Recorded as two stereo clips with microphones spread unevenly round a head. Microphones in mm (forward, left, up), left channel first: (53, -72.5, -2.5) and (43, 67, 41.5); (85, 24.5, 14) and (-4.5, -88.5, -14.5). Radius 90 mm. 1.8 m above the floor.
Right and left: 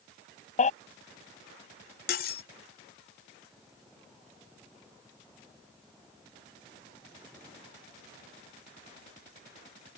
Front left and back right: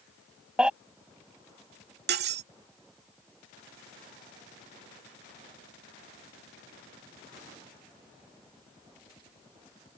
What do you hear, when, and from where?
0.6 s a baby crying: 40° right
2.1 s cutlery clinking: 135° right